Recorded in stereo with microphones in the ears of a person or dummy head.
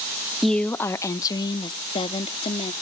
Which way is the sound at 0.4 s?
Centre (ahead or behind).